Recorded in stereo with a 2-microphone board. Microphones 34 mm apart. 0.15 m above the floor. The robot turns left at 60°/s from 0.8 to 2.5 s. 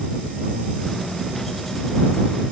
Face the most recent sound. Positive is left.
No sound to turn to.